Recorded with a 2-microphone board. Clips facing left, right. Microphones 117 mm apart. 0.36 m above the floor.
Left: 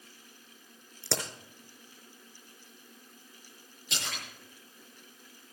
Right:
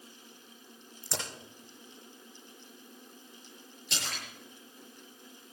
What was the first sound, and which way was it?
A crack, 75° left (ahead or behind).